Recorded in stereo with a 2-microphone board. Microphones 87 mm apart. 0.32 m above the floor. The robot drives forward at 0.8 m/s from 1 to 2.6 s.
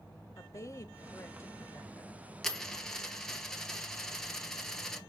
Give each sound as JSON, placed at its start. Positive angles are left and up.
{"t": 0.4, "sound": "a woman speaking", "side_deg": 35, "distance_m": 1.2}
{"t": 2.4, "sound": "a dropped coin", "side_deg": 5, "distance_m": 1.5}